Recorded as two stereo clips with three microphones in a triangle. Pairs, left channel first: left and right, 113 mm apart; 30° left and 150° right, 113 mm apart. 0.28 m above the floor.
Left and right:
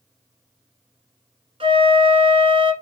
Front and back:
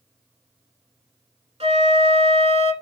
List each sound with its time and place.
1.6 s a flute: 130° right, 1.3 m